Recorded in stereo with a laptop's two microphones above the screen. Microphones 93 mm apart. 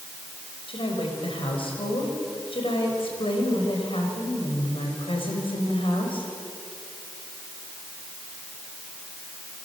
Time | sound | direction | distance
0.7 | a woman speaking | 75° left (ahead or behind) | 5 m